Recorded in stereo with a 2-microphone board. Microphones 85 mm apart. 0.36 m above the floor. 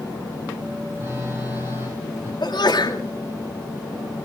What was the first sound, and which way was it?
A phone buzzing, 35° right (ahead or behind).